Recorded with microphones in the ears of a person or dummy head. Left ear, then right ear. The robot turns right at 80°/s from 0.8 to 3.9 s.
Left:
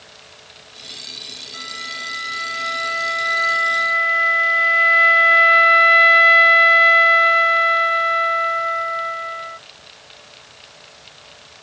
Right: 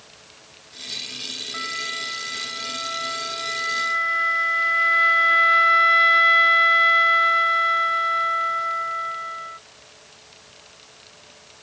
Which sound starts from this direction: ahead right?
A flute, at 1.5 s.